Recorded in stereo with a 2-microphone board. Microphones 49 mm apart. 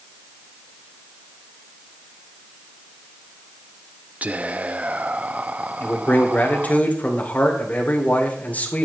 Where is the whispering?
25° right (ahead or behind), 0.6 m.